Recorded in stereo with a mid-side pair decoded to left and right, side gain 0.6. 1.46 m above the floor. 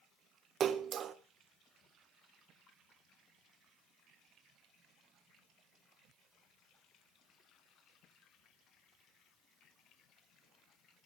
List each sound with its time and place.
0.6 s a splash: 45° right, 1.4 m